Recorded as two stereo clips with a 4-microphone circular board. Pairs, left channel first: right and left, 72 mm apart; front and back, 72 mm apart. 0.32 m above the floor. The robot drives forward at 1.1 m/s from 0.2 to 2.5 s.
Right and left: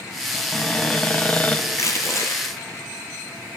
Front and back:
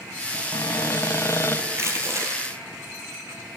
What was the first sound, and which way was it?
A cupboard door, 15° right.